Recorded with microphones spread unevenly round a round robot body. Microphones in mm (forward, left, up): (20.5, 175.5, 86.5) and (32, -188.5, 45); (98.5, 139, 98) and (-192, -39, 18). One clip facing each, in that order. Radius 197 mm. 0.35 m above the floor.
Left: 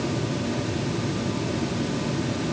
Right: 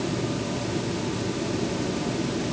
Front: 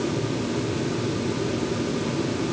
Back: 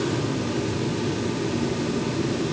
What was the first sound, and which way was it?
Only background noise.